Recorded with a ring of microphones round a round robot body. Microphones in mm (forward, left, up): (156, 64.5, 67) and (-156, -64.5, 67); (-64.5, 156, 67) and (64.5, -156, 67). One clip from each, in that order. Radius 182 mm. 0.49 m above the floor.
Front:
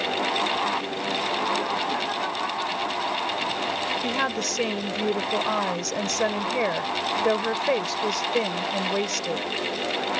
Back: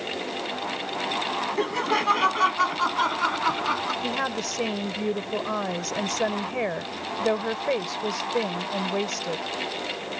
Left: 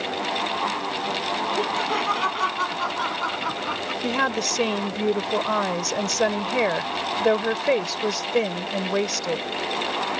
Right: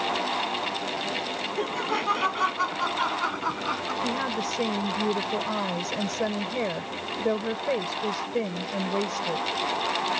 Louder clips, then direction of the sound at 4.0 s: Front 2 dB, left 8 dB; 90° left.